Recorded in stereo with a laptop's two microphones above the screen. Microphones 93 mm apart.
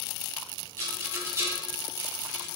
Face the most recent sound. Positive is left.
turn(degrees=-30)  # may be behind; listen again after turning